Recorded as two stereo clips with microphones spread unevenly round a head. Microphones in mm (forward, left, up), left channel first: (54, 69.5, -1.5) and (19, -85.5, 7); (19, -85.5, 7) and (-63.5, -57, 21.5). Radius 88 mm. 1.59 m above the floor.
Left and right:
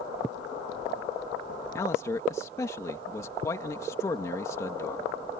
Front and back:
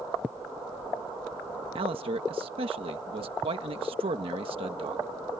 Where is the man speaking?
150° left.